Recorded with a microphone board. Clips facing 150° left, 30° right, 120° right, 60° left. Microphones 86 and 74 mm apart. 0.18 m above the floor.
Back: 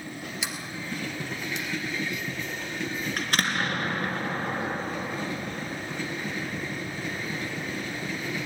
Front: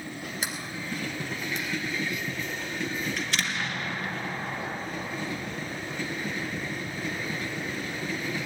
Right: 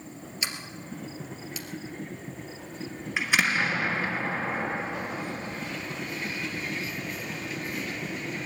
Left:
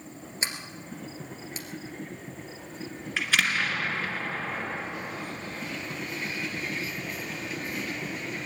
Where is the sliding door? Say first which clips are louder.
Even, left 1 dB; 10° left, 1.9 m.